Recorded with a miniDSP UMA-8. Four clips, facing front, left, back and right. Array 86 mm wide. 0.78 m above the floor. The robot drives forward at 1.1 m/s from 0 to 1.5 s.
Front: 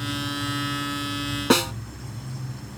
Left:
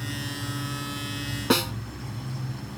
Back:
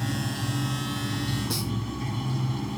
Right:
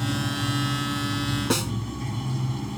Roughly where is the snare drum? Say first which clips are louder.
Left 6 dB, front 11 dB; ahead.